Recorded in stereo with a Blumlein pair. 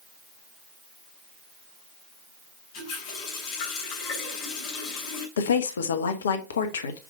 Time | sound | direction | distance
2.7 | a running tap | 40° left | 3 m
5.4 | a woman speaking | 65° left | 1.2 m